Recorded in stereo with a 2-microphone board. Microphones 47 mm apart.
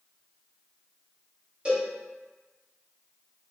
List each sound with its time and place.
1.6 s a cowbell: 25° right (ahead or behind), 1.2 m